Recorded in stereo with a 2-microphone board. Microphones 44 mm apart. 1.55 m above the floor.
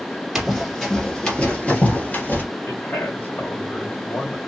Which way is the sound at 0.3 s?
Centre (ahead or behind).